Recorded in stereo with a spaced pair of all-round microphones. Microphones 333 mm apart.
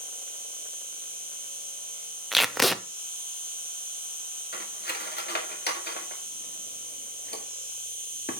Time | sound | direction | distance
0.0 | an insect | 25° right (ahead or behind) | 2.0 m
2.3 | tape being pulled | centre (ahead or behind) | 0.6 m
4.5 | cutlery clinking | 30° left (ahead or behind) | 2.0 m